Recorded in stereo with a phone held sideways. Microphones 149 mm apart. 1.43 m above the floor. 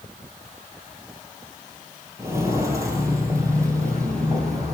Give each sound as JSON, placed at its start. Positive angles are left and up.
{"t": 2.2, "sound": "footsteps", "side_deg": -20, "distance_m": 2.5}